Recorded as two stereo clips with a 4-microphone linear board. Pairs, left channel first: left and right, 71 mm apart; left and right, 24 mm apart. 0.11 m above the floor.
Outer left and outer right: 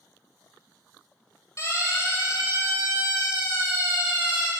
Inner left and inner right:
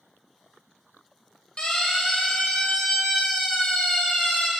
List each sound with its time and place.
1.6 s a siren: 50° left (ahead or behind), 5.5 m; by 4.5 s 65° left (ahead or behind), 5.5 m